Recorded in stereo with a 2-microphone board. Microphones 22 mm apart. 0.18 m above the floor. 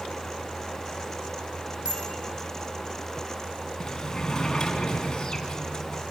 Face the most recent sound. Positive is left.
turn(degrees=25)  # may be behind; listen again after turning